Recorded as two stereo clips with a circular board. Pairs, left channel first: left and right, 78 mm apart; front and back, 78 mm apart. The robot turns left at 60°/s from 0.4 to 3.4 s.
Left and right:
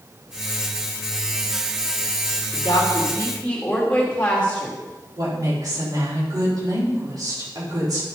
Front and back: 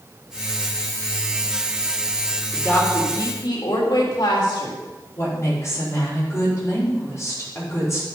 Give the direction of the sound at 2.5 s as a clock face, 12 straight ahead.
10 o'clock.